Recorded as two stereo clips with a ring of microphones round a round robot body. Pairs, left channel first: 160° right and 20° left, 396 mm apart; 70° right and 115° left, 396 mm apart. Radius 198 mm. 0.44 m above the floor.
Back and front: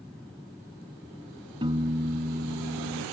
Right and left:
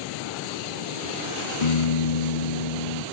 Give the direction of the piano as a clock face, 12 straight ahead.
2 o'clock.